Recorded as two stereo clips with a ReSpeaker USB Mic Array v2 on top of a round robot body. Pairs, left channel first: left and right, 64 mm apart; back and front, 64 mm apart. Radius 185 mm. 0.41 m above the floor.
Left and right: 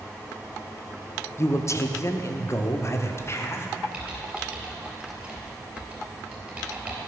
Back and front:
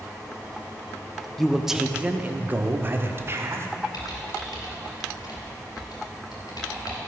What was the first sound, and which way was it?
A man speaking, 95° left.